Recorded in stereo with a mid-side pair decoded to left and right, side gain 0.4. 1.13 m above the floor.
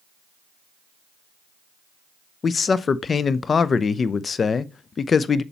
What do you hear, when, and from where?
2.4 s a man speaking: 45° left, 0.7 m